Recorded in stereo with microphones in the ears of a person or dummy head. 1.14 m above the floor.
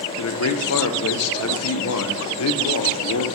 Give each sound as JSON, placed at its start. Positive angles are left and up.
{"t": 0.2, "sound": "a man speaking", "side_deg": 80, "distance_m": 0.5}